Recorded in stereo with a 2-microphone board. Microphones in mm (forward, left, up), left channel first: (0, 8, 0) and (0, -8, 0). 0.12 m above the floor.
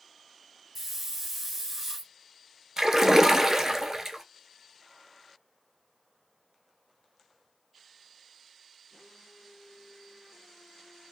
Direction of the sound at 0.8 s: 5° right (ahead or behind).